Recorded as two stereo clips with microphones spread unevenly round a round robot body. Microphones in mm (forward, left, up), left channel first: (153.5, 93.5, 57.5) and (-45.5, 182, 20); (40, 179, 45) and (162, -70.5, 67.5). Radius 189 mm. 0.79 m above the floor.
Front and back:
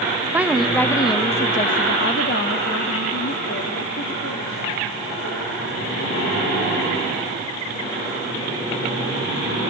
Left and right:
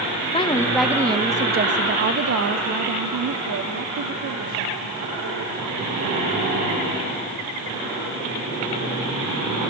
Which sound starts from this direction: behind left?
A woman speaking, at 0.3 s.